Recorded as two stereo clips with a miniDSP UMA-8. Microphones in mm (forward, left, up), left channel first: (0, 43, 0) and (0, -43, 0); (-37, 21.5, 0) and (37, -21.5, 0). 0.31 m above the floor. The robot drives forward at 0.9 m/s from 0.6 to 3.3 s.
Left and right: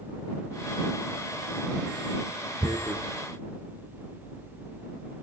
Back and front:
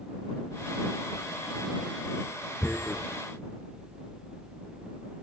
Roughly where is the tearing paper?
Behind right.